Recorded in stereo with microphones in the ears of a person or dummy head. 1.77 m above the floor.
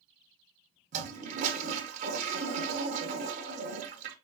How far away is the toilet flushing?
About 1.2 m.